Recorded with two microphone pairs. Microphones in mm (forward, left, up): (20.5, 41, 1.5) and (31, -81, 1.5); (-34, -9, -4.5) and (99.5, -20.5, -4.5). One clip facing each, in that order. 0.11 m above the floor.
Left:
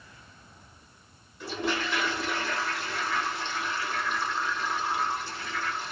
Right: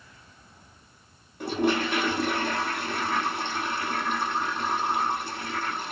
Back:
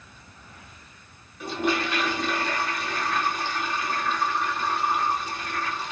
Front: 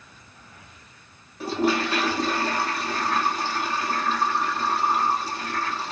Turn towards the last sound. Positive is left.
turn(degrees=-55)